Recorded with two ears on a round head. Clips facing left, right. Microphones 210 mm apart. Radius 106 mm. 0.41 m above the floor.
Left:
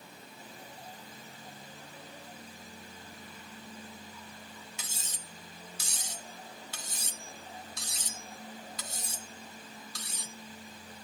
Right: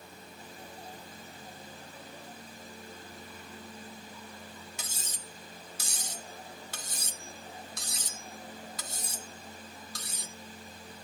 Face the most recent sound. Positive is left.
turn(degrees=-40)  # may be behind; listen again after turning